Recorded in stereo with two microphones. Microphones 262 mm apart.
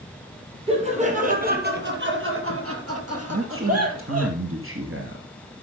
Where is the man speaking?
55° right (ahead or behind), 2.5 m.